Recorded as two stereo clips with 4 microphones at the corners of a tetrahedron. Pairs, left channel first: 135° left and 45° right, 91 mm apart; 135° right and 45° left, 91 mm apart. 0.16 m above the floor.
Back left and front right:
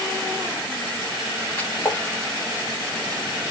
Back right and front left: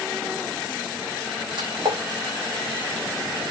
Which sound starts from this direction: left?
A splash, at 1.6 s.